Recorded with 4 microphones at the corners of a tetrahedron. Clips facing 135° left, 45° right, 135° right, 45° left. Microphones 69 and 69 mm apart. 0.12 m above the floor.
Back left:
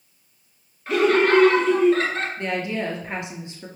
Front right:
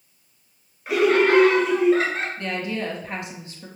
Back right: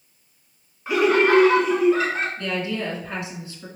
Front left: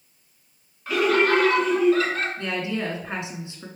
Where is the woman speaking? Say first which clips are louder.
Back left 2 dB, back right 1 dB; 90° left, 1.3 m.